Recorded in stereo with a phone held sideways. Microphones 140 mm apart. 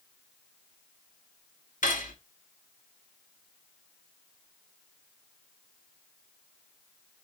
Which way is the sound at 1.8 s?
70° left (ahead or behind).